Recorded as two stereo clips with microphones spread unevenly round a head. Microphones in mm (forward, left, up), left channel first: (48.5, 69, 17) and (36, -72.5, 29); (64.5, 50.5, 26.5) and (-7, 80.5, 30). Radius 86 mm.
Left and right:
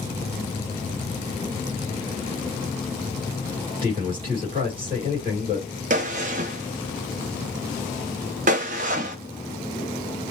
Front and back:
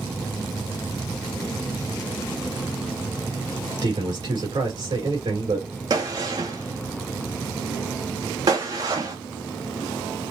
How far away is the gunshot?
About 0.5 m.